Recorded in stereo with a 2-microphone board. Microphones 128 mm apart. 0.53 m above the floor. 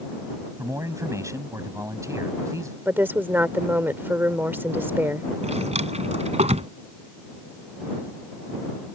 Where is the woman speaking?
15° right (ahead or behind).